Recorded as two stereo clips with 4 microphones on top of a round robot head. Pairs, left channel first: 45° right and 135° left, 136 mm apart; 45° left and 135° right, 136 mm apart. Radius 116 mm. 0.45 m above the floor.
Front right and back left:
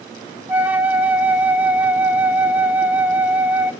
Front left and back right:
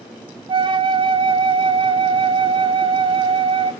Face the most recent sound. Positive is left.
turn(degrees=-155)